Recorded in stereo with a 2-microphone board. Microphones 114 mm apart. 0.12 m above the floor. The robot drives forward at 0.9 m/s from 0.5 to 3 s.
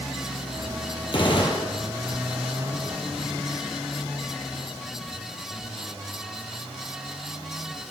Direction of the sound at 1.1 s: 50° left (ahead or behind).